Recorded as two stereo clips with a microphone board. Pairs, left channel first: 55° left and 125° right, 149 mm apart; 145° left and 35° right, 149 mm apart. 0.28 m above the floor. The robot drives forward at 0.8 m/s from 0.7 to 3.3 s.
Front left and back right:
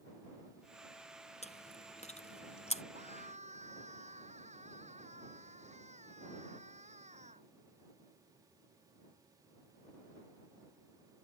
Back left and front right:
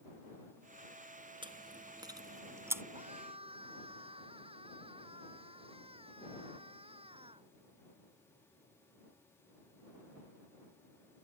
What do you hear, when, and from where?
1.4 s chewing: 20° left; by 2.8 s 35° left
3.0 s a scream: 85° right